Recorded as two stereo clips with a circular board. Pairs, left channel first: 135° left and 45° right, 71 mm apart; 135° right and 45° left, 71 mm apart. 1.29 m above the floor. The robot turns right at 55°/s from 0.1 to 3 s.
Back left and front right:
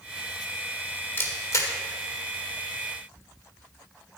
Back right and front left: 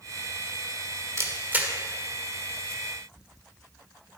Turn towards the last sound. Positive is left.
turn(degrees=-175)